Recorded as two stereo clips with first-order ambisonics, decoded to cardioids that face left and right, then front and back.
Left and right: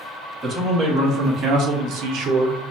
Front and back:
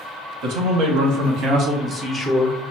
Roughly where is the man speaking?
Behind.